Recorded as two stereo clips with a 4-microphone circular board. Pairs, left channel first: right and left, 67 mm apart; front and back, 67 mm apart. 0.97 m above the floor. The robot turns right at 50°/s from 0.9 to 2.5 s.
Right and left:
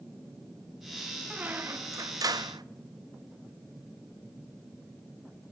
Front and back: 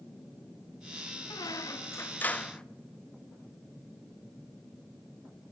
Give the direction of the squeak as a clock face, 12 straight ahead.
11 o'clock.